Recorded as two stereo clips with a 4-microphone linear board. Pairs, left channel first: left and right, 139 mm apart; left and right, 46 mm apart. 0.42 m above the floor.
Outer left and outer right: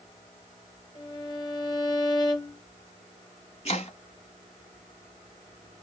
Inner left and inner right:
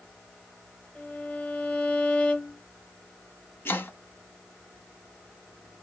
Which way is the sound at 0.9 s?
30° left (ahead or behind).